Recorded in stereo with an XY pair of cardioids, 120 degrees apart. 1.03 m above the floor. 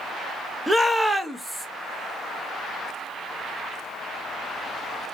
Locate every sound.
0.7 s a shout: 5° right, 0.9 m